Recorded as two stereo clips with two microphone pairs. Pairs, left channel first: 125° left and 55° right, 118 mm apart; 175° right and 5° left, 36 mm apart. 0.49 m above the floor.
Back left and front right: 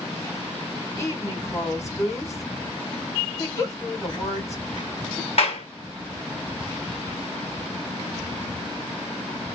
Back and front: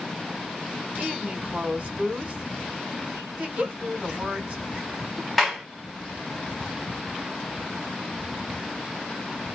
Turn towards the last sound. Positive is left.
turn(degrees=95)